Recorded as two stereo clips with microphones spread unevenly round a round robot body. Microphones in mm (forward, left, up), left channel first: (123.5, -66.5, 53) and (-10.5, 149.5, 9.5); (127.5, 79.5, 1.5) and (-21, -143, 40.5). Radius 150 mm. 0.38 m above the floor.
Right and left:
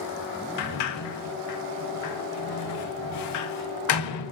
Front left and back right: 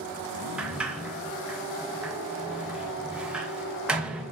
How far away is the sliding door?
About 0.5 m.